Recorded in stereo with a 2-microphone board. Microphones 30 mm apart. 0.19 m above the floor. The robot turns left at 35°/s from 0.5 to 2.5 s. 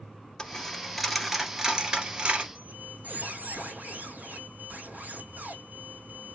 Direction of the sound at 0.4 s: 20° left (ahead or behind).